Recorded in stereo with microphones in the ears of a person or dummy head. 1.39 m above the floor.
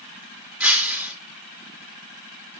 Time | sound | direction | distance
0.6 | breaking glass | 10° right (ahead or behind) | 2 m